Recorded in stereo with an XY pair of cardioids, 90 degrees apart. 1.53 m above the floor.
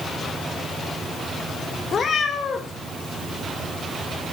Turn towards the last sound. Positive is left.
turn(degrees=55)